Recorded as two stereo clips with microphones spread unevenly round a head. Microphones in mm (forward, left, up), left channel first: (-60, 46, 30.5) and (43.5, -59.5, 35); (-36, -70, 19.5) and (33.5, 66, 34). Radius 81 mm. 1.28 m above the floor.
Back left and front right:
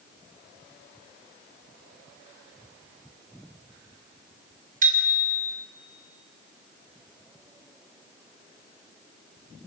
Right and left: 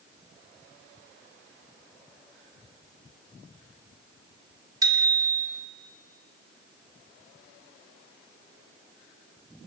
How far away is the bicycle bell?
About 2.5 m.